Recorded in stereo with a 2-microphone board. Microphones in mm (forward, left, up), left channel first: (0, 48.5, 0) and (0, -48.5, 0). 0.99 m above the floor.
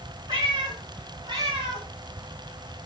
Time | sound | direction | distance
0.3 | a cat meowing | 40° right (ahead or behind) | 4 m